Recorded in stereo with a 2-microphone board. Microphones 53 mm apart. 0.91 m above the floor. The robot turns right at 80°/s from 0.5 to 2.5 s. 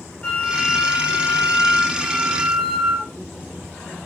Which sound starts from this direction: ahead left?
A flute, at 0.2 s.